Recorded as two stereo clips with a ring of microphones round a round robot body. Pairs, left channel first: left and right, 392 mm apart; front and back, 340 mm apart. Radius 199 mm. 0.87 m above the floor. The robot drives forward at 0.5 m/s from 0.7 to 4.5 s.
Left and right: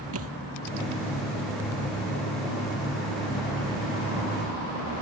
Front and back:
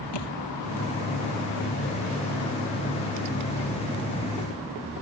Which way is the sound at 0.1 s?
35° right.